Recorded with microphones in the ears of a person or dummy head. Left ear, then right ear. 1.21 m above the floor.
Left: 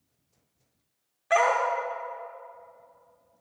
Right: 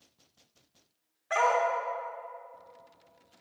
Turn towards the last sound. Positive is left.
turn(degrees=20)  # may be behind; listen again after turning